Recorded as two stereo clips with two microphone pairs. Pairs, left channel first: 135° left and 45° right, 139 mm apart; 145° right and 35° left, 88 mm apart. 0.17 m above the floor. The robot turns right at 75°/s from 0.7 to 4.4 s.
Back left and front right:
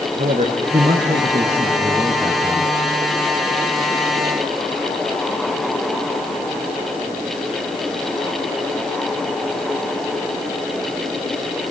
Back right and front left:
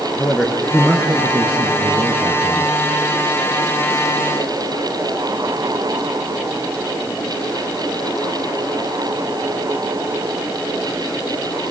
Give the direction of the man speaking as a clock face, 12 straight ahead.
2 o'clock.